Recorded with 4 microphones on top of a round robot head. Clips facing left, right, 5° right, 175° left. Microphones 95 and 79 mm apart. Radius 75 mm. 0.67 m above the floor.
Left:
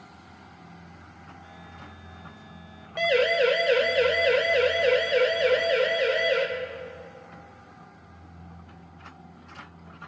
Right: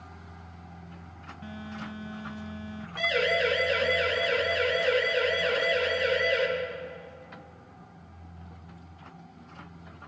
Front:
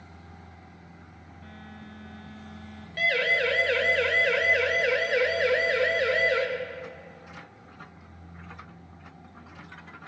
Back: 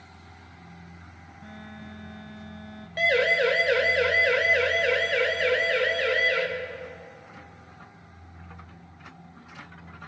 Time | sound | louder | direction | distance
1.4 | a phone buzzing | right 11 dB, back 3 dB | 110° right | 2 m
3.0 | a siren | left 5 dB, back 3 dB | 120° left | 3 m